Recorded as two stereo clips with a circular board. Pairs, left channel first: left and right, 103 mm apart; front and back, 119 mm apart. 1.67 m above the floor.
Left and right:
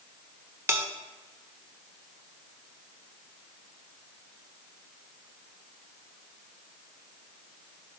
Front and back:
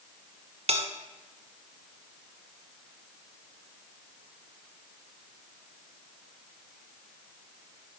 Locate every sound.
0.7 s a bell: 155° right, 0.8 m